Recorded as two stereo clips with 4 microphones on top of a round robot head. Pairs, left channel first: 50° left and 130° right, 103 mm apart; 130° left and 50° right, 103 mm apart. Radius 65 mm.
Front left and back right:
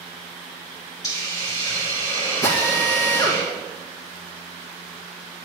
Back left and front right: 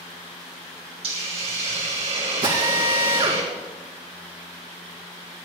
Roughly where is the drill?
Ahead.